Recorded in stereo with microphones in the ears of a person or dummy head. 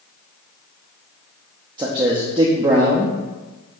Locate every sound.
1.8 s a man speaking: 25° right (ahead or behind), 0.6 m